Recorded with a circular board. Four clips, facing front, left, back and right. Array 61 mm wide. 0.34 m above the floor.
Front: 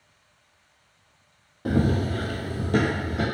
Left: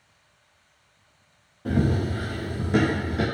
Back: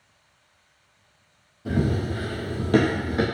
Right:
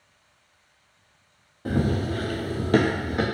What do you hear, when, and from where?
1.6 s running footsteps: 20° right, 0.8 m; by 3.2 s 140° right, 1.0 m